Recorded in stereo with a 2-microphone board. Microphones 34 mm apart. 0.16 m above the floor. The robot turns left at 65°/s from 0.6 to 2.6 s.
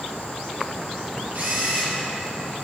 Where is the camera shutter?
105° right, 2.5 m; by 2.0 s 145° right, 2.5 m.